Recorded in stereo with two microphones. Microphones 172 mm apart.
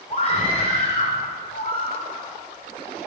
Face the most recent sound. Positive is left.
turn(degrees=40)  # may be behind; listen again after turning